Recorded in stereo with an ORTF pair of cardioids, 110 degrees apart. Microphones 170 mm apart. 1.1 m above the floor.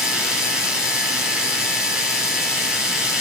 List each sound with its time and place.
0.0 s a machine running: 5° right, 4 m